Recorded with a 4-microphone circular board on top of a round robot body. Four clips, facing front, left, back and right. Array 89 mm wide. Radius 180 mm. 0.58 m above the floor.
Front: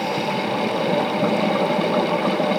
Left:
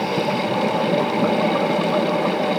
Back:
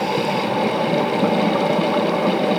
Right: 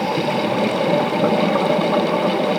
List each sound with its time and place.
Only background noise.